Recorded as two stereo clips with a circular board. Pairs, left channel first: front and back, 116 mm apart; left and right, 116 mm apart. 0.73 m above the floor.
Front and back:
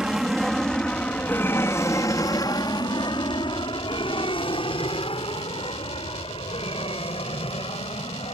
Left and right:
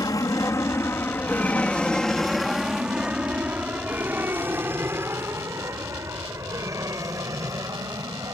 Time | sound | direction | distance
0.0 | an aircraft | 100° left | ?